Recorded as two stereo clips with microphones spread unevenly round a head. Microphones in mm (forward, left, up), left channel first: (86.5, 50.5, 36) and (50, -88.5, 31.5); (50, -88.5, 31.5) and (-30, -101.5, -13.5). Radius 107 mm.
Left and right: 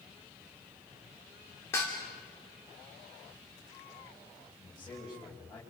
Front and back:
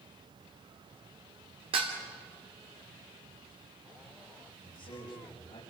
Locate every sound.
1.7 s dishes clattering: 155° left, 2.5 m
4.6 s a man speaking: 15° left, 5.5 m